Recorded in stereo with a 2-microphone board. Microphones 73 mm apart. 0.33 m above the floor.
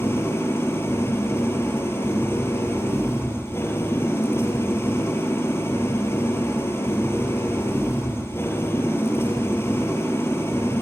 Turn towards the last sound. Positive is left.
turn(degrees=35)  # may be behind; listen again after turning